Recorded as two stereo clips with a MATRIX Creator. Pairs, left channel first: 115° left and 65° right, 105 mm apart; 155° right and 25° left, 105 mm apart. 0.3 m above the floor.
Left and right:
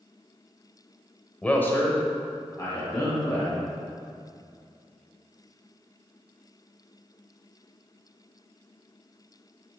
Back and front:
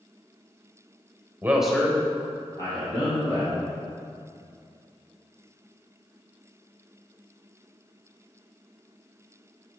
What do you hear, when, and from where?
1.4 s a man speaking: 50° left, 1.0 m; by 3.7 s 170° left, 3 m